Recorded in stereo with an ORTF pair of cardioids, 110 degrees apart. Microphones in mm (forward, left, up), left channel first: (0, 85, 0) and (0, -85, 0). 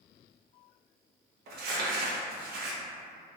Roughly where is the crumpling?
Ahead right.